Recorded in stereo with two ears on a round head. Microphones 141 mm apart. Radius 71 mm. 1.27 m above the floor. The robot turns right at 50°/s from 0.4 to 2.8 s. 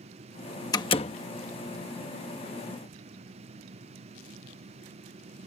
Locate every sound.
0.7 s a door slam: 25° left (ahead or behind); by 1.2 s 45° left (ahead or behind)